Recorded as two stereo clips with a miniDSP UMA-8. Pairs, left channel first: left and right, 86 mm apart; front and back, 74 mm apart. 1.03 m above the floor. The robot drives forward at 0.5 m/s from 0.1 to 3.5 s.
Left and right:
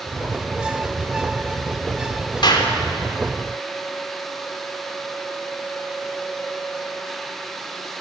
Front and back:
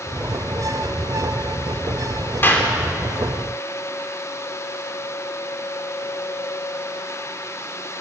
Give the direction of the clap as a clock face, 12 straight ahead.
10 o'clock.